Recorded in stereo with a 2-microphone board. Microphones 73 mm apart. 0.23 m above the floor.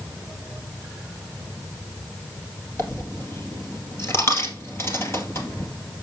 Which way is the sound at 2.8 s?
35° left (ahead or behind).